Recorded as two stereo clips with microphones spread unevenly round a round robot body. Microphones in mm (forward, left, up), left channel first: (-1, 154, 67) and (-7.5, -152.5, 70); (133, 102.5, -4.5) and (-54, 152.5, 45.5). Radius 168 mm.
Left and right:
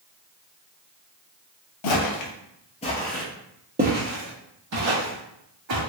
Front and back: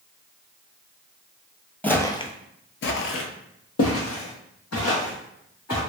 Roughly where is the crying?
No crying in this recording.